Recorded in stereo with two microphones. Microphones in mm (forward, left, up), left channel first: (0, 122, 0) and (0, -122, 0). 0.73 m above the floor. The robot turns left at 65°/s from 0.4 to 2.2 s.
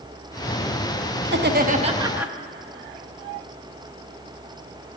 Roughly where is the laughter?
Right.